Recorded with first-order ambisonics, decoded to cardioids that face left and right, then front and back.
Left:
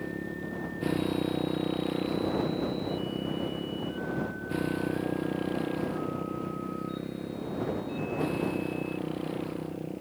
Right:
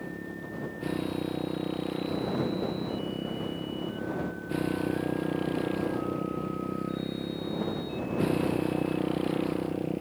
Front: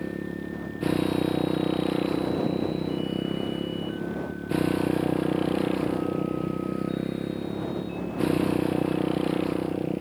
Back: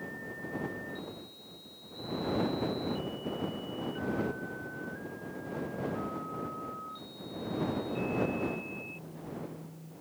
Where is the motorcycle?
10° left; by 10.0 s 20° right.